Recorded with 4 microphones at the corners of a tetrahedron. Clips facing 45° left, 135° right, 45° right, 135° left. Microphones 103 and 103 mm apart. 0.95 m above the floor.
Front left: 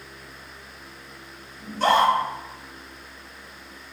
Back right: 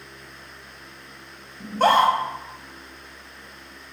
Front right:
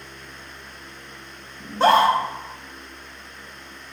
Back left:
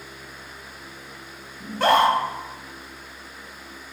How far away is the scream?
About 1.1 m.